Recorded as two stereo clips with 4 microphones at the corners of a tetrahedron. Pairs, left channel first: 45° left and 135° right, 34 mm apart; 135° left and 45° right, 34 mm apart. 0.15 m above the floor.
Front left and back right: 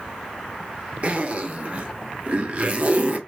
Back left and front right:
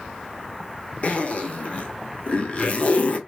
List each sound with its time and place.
1.0 s a zipper: 175° right, 0.7 m